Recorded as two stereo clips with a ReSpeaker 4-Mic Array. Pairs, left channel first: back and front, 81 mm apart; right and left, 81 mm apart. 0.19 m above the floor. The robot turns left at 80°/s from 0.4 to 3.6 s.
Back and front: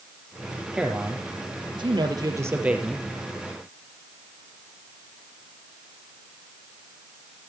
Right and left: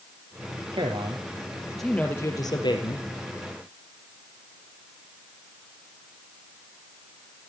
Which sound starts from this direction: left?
A man speaking, at 0.7 s.